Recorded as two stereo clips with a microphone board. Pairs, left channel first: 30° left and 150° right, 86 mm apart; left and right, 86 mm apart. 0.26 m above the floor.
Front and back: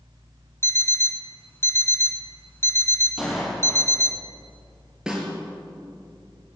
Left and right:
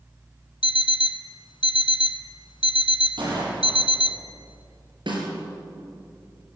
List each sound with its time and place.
0.6 s an alarm clock: 85° left, 1.2 m
3.2 s a gunshot: 60° right, 8.5 m
5.1 s a snare drum: 65° right, 6 m